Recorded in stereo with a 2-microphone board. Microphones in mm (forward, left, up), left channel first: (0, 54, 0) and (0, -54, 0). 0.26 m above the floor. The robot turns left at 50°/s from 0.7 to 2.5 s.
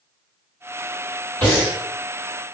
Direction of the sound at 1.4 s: 25° left (ahead or behind).